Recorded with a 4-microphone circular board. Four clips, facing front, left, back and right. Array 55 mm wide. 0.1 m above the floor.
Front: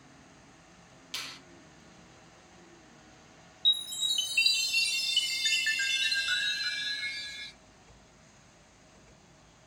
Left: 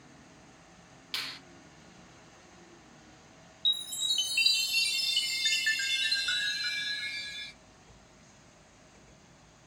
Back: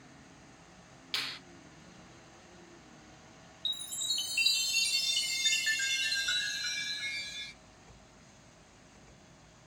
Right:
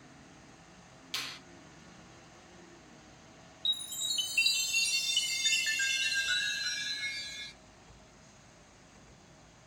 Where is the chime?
45° left, 1.7 m.